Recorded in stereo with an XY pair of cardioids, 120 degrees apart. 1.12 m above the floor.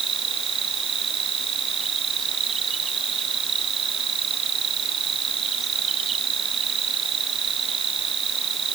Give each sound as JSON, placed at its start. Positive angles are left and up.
{"t": 0.0, "sound": "an insect", "azimuth_deg": -45}